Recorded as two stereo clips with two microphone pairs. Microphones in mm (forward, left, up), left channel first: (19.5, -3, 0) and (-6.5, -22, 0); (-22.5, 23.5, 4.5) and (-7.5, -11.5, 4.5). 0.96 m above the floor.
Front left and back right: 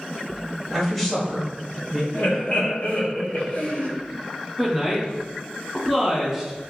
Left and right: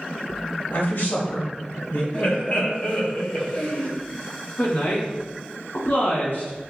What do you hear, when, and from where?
0.7 s a man speaking: 115° left, 1.3 m
2.1 s laughter: 65° left, 1.0 m
4.6 s a woman speaking: 125° left, 1.6 m